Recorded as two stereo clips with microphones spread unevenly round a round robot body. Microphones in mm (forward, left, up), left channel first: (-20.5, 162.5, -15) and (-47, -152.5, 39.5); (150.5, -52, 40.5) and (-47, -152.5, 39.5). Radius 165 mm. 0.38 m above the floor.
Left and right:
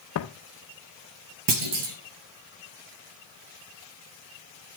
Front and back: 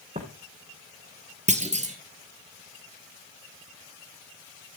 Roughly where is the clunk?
Right.